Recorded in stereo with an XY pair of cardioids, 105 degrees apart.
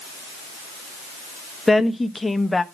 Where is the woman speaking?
15° left, 1.0 m.